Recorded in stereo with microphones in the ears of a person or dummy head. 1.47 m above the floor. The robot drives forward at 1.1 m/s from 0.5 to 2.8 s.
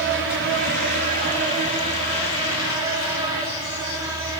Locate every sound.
0.0 s an insect: 70° right (ahead or behind), 1.7 m; by 4.4 s 30° right (ahead or behind), 3.5 m